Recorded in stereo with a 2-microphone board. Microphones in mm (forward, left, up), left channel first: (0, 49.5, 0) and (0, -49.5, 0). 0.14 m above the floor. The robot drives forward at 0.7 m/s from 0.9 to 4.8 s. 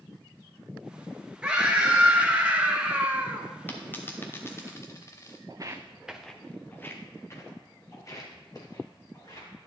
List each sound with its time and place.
1.4 s a scream: 10° right (ahead or behind), 2.5 m; by 3.5 s 15° right (ahead or behind), 1.5 m
3.7 s a dropped coin: 20° left (ahead or behind), 1.7 m; by 5.4 s 30° left (ahead or behind), 1.0 m
5.5 s footsteps: 45° right (ahead or behind), 0.9 m; by 9.5 s 45° left (ahead or behind), 4.5 m